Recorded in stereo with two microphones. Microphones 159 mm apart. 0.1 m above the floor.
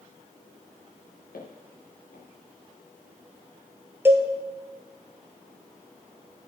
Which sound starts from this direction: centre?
A cowbell, at 4.0 s.